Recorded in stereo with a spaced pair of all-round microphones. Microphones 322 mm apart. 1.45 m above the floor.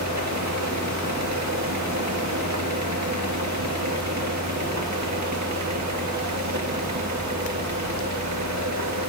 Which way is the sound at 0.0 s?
55° right (ahead or behind).